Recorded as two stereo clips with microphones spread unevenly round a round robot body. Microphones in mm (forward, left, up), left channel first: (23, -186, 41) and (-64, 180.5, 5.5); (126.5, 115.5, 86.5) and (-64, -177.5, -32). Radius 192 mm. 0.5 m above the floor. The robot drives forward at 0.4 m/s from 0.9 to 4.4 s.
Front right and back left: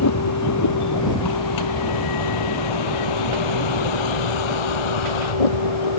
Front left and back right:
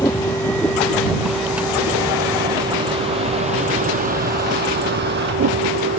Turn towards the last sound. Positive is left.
turn(degrees=-65)